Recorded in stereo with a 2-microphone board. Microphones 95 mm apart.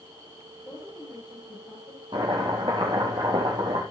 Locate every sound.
0.6 s a woman speaking: 20° left (ahead or behind), 9.5 m; by 2.0 s 15° left (ahead or behind), 10 m
2.1 s chopping: 55° right (ahead or behind), 4 m